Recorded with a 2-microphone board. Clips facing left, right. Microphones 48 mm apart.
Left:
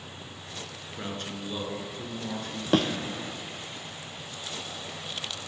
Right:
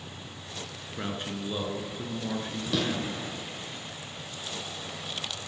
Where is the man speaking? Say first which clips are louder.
Right 2 dB; 15° right (ahead or behind), 1.8 m.